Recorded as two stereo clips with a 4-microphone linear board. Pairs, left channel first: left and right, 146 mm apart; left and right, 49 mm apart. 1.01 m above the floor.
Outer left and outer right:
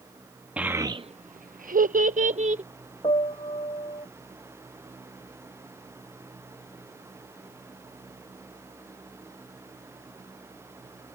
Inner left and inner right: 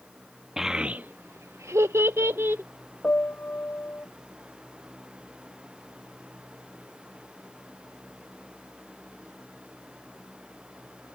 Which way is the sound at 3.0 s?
35° left (ahead or behind).